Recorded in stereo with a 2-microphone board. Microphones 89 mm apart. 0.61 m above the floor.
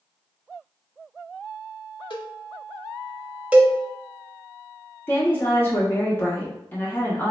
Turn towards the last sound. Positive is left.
turn(degrees=25)  # may be behind; listen again after turning